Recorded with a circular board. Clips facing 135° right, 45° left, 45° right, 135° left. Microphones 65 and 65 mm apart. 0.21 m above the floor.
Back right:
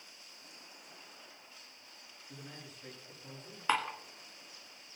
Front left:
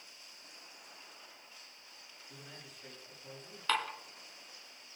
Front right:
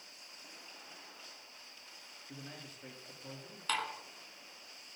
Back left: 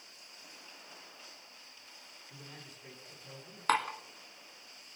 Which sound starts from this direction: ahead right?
A man speaking, at 2.3 s.